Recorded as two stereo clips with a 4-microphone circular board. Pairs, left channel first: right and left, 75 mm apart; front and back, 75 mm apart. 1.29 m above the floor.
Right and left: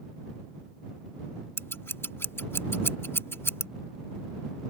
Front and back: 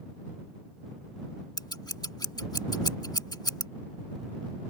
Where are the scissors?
30° right.